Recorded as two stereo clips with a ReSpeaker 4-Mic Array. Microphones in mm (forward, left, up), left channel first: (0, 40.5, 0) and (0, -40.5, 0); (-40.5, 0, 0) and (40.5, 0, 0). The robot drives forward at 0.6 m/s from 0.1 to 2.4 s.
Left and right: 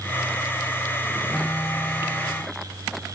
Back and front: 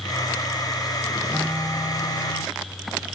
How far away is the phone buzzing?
About 0.6 m.